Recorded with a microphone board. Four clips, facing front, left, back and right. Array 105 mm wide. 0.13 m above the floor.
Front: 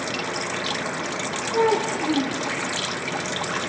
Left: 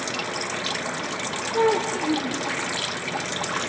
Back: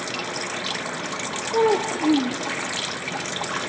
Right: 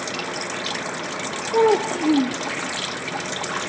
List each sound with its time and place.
1.5 s a child speaking: 115° right, 2.5 m